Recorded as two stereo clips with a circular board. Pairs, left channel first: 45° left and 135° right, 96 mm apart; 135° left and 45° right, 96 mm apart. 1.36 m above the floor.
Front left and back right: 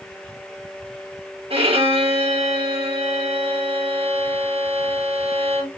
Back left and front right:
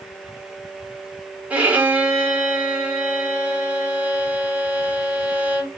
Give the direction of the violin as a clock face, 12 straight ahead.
4 o'clock.